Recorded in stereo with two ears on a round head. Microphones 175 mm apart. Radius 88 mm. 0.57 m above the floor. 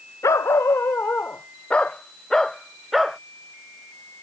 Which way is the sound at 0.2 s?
15° left (ahead or behind).